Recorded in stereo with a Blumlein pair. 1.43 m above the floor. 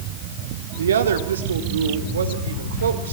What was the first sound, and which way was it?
A woman speaking, 65° right.